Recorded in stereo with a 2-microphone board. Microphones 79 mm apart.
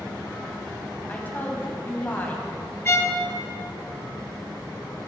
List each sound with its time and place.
1.1 s a woman speaking: 25° left (ahead or behind), 1.1 m
2.9 s a violin: 35° left (ahead or behind), 0.5 m